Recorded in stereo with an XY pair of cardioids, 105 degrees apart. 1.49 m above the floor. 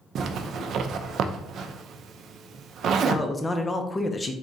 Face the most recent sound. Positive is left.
turn(degrees=20)